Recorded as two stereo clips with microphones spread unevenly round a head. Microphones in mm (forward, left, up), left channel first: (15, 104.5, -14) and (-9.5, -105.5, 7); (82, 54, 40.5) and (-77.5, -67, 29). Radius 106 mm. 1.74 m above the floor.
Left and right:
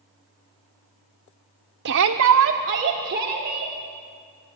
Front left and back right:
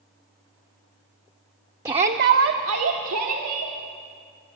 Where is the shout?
65° right, 0.8 m; by 3.7 s 145° right, 3 m.